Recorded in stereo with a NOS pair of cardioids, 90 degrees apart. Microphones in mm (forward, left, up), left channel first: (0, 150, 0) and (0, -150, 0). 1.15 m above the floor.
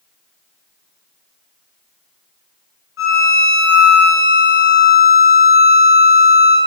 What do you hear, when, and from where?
3.0 s a violin: 45° left, 2 m